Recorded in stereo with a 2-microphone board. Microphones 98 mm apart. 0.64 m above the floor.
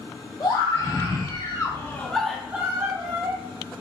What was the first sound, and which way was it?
A scream, 55° left (ahead or behind).